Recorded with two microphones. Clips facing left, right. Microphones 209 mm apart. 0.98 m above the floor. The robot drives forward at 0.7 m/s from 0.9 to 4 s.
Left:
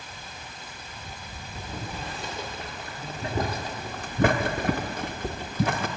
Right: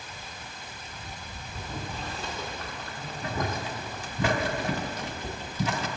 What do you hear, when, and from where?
1.6 s boiling: 10° left (ahead or behind), 2 m; by 5.9 s 55° left (ahead or behind), 0.5 m